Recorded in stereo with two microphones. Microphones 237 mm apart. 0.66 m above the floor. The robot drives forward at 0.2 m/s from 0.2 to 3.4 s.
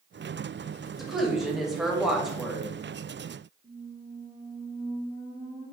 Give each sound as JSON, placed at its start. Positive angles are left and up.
{"t": 1.0, "sound": "a woman speaking", "side_deg": 0, "distance_m": 0.8}
{"t": 3.6, "sound": "a squeak", "side_deg": -30, "distance_m": 1.6}